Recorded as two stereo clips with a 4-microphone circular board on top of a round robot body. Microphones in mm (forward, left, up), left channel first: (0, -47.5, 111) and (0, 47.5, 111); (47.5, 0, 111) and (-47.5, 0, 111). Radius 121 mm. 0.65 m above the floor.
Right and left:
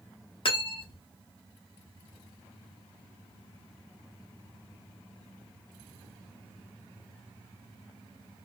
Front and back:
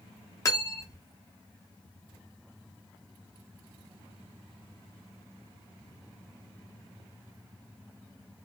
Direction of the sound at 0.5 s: 55° right.